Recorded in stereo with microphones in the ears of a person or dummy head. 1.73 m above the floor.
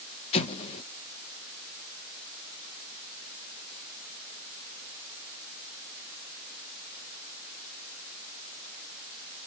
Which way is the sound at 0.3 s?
35° left (ahead or behind).